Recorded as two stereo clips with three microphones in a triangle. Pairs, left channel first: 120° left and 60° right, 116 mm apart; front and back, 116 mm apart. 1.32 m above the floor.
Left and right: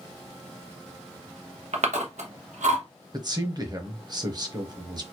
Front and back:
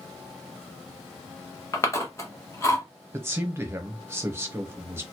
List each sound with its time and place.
1.7 s chewing: 65° right, 1.0 m
3.1 s a man speaking: 110° right, 0.9 m